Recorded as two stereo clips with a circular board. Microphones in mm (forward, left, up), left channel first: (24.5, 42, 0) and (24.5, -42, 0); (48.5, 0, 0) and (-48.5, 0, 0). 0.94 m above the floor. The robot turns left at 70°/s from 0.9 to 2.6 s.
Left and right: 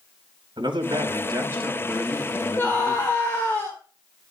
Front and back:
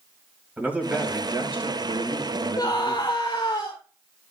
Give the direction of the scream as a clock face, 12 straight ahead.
11 o'clock.